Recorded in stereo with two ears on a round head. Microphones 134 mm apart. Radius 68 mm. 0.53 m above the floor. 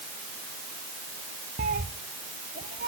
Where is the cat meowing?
50° right (ahead or behind), 1.1 m.